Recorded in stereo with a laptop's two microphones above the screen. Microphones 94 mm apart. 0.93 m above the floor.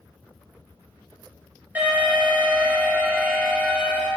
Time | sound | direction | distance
1.8 | an alarm | 20° right (ahead or behind) | 1.8 m